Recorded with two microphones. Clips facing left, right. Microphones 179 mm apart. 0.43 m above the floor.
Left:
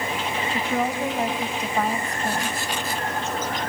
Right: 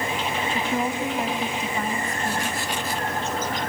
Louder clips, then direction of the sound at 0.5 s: Left 2 dB; 40° left (ahead or behind).